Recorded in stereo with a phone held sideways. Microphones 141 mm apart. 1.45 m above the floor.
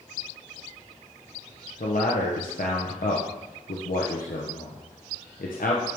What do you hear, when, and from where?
1.8 s a man speaking: 80° left, 0.9 m